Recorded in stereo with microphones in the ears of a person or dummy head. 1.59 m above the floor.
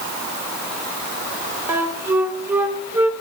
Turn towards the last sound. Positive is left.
turn(degrees=-10)  # may be behind; listen again after turning